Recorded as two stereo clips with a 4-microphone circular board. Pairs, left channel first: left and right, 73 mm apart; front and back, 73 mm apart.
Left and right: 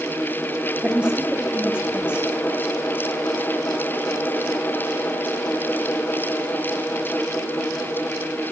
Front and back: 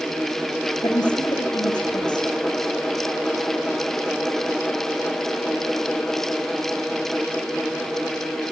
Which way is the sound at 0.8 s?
15° right.